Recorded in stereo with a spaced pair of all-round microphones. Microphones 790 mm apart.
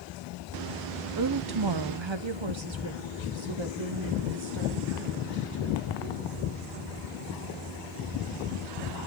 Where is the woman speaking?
25° right (ahead or behind), 0.6 m; by 7.0 s 30° right (ahead or behind), 3.5 m.